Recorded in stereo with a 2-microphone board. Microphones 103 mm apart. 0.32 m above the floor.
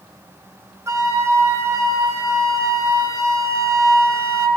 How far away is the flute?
About 0.6 m.